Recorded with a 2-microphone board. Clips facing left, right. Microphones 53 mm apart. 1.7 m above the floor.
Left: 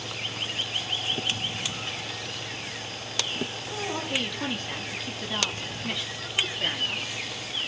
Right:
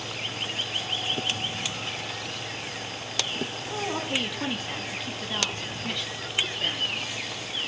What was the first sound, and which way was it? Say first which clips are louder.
A woman speaking: right 2 dB; 20° right (ahead or behind).